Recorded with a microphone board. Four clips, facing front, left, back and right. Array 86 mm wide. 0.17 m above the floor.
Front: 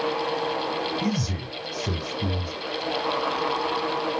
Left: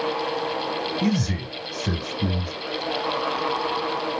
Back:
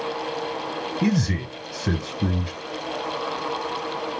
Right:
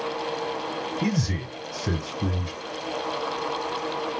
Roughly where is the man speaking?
Behind.